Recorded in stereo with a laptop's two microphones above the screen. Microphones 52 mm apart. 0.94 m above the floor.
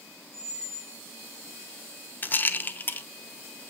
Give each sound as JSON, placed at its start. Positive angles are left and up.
{"t": 0.3, "sound": "a squeak", "side_deg": -55, "distance_m": 4.5}
{"t": 2.2, "sound": "a rattle", "side_deg": 40, "distance_m": 0.6}